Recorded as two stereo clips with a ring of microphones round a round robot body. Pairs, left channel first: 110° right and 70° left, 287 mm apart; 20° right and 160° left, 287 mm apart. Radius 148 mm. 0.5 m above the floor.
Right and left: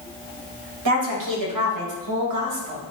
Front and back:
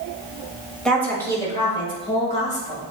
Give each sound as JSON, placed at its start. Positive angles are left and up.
{"t": 0.8, "sound": "a woman speaking", "azimuth_deg": 65, "distance_m": 2.5}